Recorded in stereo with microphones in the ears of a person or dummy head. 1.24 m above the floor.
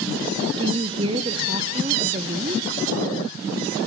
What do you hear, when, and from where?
0.6 s a woman speaking: 25° right (ahead or behind), 0.8 m